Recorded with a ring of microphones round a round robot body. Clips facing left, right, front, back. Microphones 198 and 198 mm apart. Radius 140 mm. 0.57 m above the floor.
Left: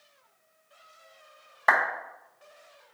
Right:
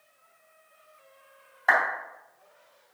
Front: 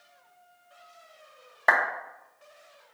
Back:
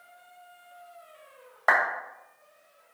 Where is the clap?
75° left, 2 m.